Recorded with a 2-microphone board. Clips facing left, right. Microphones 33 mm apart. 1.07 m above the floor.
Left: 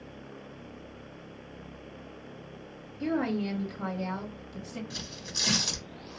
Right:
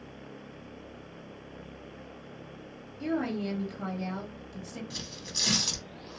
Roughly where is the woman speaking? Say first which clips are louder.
Left 2 dB; centre.